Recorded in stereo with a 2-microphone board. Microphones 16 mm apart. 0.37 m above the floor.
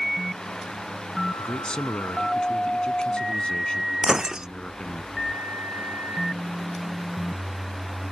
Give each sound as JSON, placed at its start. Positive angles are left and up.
{"t": 1.4, "sound": "a man speaking", "side_deg": 65}
{"t": 4.0, "sound": "breaking glass", "side_deg": -40}